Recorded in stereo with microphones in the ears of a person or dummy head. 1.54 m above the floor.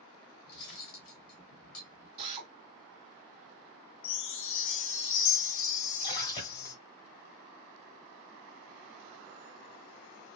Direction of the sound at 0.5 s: 40° left (ahead or behind).